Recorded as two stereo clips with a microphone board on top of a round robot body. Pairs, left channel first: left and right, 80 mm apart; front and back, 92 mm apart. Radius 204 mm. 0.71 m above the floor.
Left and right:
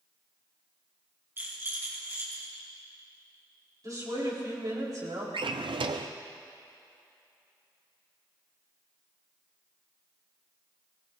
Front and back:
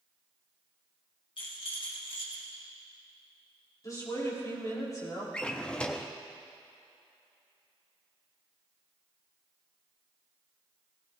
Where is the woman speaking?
50° right, 4.5 m.